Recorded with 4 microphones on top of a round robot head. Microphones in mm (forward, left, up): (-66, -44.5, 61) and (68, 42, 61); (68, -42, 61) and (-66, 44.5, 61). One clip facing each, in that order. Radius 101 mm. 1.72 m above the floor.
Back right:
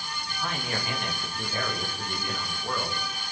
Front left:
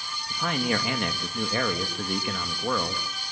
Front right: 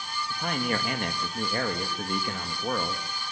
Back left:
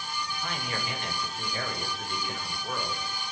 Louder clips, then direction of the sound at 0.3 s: Front left 7 dB, front right 9 dB; 10° left.